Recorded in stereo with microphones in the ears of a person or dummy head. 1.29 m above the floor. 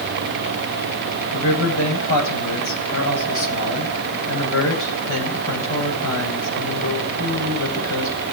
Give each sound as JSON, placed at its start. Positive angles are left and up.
{"t": 1.3, "sound": "a man speaking", "side_deg": 75, "distance_m": 10.0}